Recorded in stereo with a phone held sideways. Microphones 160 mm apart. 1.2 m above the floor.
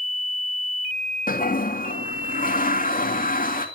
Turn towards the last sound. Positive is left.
turn(degrees=60)  # may be behind; listen again after turning